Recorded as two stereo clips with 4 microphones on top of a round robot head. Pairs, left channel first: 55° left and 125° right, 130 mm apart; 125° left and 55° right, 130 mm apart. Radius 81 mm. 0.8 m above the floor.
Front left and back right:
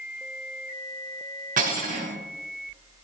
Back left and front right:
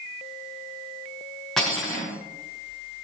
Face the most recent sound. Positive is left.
turn(degrees=-150)